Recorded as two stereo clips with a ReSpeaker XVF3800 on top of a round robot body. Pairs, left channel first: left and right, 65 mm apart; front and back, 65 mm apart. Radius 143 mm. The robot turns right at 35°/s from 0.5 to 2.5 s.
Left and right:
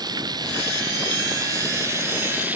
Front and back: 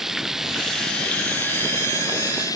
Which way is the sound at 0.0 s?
95° right.